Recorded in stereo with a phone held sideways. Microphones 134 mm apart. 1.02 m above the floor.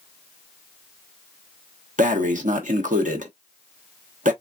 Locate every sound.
2.0 s breathing: 75° right (ahead or behind), 1.0 m